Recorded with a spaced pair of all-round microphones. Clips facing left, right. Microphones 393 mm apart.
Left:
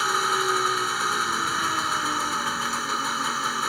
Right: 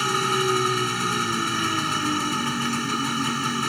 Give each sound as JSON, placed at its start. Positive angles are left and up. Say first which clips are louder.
{"t": 0.0, "sound": "an engine running", "louder": "right 5 dB", "side_deg": -45}